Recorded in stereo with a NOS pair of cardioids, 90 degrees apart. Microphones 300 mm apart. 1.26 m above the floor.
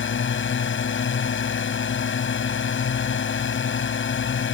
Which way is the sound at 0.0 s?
45° left.